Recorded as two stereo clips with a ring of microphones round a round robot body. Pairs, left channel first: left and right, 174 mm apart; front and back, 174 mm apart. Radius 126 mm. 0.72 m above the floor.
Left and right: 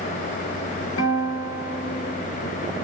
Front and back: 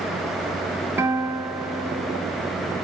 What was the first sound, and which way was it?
A guitar, 100° left.